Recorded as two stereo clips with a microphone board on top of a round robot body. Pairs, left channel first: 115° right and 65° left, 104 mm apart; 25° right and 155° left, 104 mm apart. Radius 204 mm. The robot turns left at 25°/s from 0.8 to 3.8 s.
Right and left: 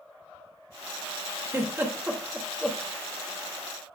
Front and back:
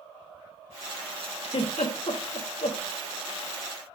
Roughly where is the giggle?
Ahead.